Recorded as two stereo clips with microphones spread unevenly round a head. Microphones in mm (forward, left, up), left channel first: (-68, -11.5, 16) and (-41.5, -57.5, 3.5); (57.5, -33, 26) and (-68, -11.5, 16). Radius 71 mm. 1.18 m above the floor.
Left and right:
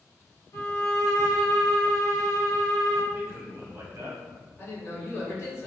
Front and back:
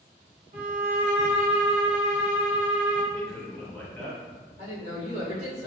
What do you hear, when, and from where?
0.5 s a violin: 140° left, 1.2 m
3.1 s a man speaking: 95° right, 1.3 m
4.6 s a man speaking: 165° left, 1.9 m